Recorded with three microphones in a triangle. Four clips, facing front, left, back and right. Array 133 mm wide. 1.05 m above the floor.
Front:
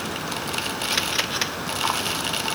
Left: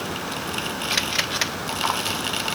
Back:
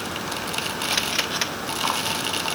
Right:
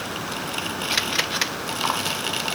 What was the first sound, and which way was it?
Only background noise.